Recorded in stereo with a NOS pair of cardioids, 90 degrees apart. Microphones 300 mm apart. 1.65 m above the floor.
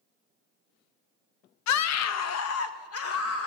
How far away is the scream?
About 0.7 m.